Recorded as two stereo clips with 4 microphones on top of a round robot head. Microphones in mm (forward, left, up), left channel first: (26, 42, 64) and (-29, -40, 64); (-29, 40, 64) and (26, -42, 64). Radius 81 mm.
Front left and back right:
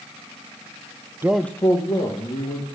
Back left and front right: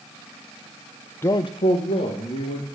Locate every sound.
1.2 s a man speaking: straight behind, 0.5 m; by 2.7 s 105° left, 2.5 m